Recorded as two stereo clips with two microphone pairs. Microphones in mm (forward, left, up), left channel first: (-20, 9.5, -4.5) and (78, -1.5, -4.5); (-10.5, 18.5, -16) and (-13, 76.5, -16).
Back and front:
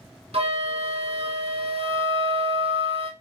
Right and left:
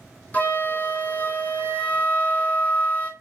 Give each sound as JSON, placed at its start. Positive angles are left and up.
{"t": 0.3, "sound": "a flute", "azimuth_deg": -20, "distance_m": 0.8}